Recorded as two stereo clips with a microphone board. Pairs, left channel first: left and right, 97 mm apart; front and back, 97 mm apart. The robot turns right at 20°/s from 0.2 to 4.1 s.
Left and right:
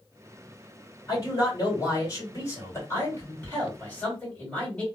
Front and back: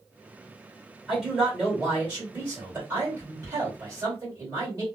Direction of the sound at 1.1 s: 95° left.